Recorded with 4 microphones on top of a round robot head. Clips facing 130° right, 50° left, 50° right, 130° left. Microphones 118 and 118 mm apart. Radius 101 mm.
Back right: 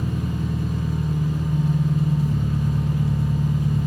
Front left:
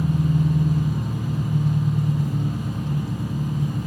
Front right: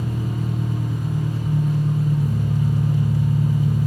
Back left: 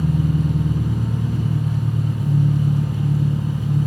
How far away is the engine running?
About 4 m.